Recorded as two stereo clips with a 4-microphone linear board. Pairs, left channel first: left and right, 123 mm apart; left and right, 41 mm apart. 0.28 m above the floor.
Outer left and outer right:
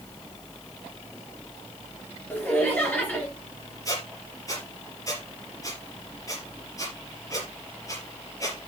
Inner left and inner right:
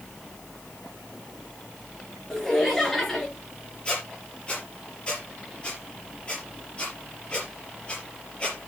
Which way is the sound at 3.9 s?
30° left (ahead or behind).